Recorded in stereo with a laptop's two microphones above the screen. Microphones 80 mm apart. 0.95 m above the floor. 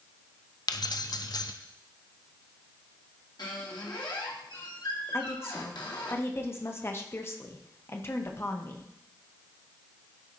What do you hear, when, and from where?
0.7 s keys jangling: 55° left (ahead or behind), 0.7 m
3.4 s a squeak: 65° left (ahead or behind), 1.4 m
5.1 s a woman speaking: 30° left (ahead or behind), 0.9 m